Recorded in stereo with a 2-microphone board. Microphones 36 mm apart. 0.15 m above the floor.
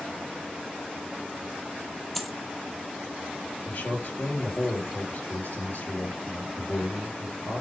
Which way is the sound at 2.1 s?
5° left (ahead or behind).